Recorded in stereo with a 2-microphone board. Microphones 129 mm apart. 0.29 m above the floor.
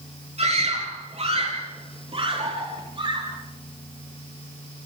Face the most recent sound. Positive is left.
turn(degrees=-40)  # may be behind; listen again after turning